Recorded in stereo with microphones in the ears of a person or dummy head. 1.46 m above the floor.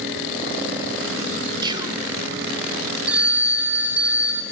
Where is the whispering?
25° right (ahead or behind), 1.9 m.